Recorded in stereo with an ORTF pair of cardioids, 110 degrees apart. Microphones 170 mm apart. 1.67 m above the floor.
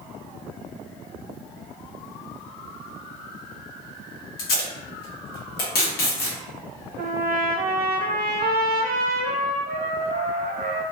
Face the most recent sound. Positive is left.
turn(degrees=-60)